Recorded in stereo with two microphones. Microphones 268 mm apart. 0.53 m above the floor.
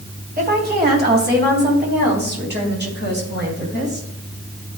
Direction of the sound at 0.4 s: 35° right (ahead or behind).